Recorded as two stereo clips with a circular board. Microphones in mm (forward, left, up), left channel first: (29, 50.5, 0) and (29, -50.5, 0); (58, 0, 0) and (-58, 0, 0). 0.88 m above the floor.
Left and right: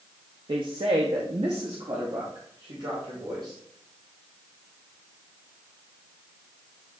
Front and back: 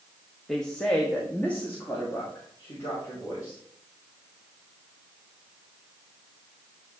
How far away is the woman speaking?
About 0.8 m.